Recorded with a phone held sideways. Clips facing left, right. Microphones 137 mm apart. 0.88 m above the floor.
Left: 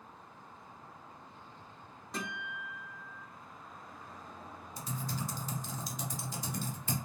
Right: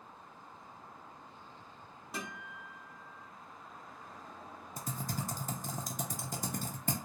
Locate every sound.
2.1 s a guitar: 5° right (ahead or behind), 0.9 m
4.8 s typing on a keyboard: 50° right (ahead or behind), 0.5 m